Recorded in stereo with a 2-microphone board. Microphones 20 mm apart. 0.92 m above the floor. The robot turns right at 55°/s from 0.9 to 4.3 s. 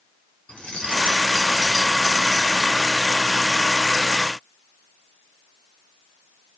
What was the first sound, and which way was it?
Keys jangling, 95° left.